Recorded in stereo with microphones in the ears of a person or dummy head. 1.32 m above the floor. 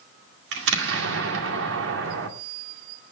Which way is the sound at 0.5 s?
75° right (ahead or behind).